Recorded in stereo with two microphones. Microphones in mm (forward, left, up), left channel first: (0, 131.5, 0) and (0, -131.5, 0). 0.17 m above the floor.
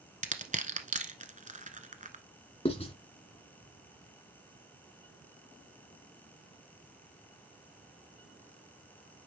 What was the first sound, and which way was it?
Crushing, 30° right (ahead or behind).